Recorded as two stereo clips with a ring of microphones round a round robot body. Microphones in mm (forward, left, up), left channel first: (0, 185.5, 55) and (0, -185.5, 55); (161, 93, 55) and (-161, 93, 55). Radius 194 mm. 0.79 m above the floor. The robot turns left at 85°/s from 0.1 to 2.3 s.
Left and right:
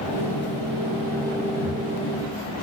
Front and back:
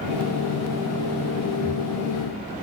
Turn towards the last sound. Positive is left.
turn(degrees=75)